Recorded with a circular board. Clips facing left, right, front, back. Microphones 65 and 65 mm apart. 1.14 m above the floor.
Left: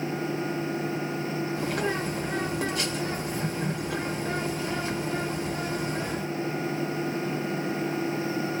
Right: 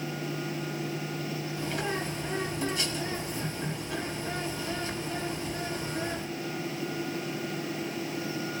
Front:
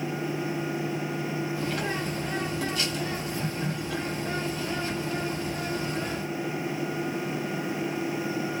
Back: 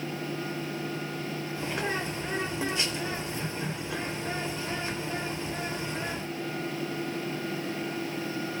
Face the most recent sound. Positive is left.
turn(degrees=115)